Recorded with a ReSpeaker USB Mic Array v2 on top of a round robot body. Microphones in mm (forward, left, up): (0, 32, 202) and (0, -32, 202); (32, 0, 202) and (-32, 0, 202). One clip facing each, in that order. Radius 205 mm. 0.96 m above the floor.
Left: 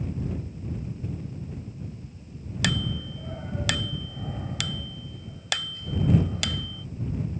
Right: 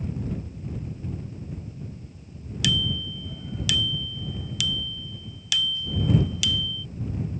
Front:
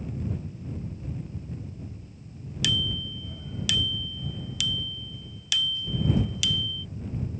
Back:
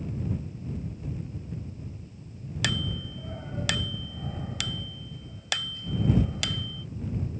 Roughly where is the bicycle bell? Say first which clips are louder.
Right 1 dB, front 1 dB; behind left.